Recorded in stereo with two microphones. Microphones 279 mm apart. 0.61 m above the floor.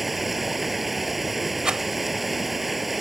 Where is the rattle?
5° right (ahead or behind).